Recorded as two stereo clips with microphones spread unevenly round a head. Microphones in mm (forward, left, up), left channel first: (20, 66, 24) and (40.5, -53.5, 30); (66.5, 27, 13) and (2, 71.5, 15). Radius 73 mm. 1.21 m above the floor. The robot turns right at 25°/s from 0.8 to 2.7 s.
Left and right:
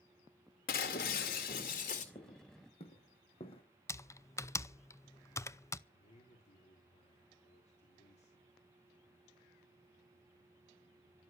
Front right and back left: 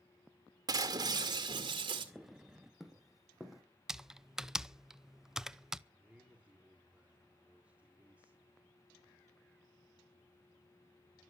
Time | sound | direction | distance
0.7 | breaking glass | 110° left | 2.0 m
2.1 | footsteps | 50° left | 3.5 m
3.9 | typing on a keyboard | 65° left | 0.6 m
5.9 | a man speaking | 70° left | 3.5 m